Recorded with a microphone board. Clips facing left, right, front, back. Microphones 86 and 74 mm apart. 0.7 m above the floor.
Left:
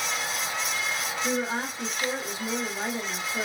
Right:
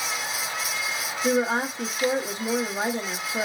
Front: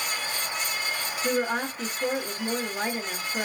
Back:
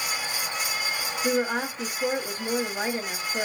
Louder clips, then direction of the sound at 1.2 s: Right 7 dB, back 1 dB; 100° right.